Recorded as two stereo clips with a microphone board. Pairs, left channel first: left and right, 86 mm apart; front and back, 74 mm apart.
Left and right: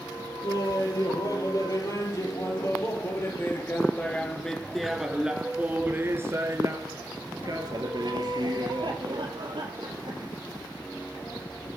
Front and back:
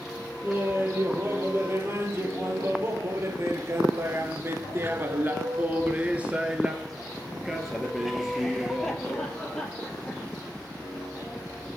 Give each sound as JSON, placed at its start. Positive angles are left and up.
{"t": 0.4, "sound": "laughter", "azimuth_deg": 125, "distance_m": 4.0}